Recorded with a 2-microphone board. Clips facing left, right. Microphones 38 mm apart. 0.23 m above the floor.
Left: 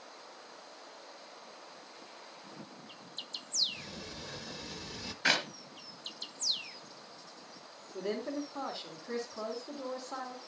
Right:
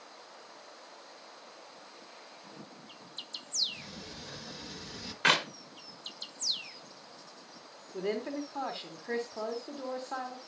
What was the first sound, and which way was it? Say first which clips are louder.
A sliding door: left 1 dB; 5° right (ahead or behind).